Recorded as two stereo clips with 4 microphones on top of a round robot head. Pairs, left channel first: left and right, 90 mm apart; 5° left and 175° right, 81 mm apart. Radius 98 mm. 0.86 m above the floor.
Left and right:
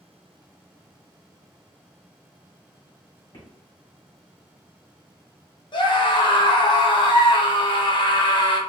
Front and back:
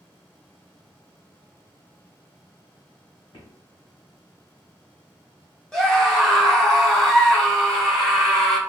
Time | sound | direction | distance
3.3 | footsteps | 50° left | 2.5 m
5.7 | a scream | 90° left | 1.5 m